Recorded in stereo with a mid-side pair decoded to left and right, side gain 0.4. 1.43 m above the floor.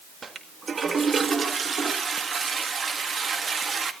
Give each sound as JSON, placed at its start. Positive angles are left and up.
{"t": 0.2, "sound": "a toilet flushing", "azimuth_deg": -45, "distance_m": 1.8}